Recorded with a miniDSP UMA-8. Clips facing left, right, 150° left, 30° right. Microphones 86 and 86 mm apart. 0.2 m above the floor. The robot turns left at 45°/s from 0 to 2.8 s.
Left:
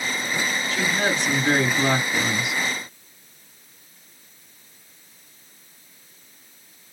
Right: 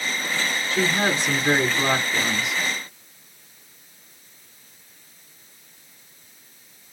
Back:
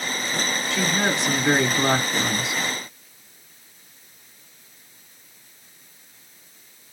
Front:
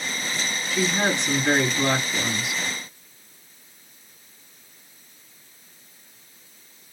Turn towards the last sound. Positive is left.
turn(degrees=160)